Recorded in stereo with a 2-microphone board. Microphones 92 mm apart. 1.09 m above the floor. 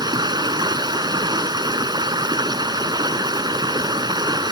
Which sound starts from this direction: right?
Running water, at 0.0 s.